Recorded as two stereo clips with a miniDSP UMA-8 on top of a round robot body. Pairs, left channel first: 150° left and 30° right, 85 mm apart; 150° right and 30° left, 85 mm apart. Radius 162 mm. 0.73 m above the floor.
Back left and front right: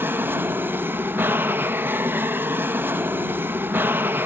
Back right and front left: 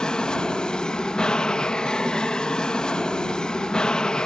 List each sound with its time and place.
0.0 s an aircraft: 75° right